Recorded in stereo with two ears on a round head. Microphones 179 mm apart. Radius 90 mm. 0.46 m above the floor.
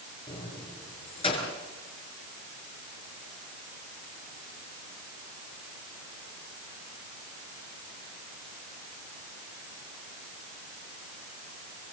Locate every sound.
0.3 s keys jangling: 30° left (ahead or behind), 6 m